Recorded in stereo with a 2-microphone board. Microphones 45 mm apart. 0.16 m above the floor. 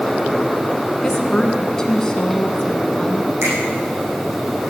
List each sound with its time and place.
1.0 s a woman speaking: 15° left (ahead or behind), 1.9 m
3.4 s a finger snap: 80° right, 7.5 m